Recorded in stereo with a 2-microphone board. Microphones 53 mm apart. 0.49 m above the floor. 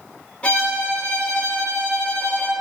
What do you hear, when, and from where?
0.4 s a violin: 25° left (ahead or behind), 0.6 m